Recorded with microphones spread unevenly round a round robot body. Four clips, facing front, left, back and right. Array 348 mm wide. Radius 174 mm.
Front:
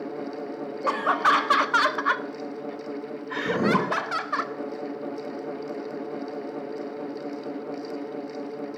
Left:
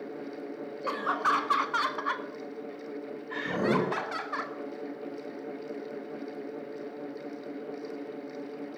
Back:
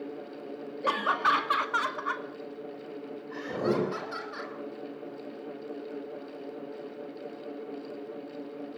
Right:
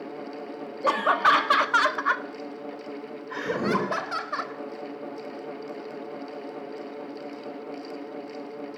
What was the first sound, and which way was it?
Laughter, 110° right.